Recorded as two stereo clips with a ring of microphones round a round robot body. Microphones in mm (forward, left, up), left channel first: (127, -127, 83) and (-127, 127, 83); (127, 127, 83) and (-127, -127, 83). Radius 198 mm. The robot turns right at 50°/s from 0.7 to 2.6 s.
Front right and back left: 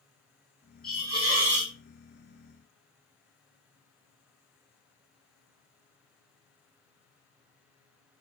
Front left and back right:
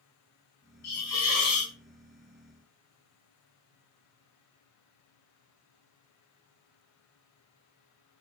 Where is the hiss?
40° left, 1.1 m; by 1.7 s 85° left, 1.1 m.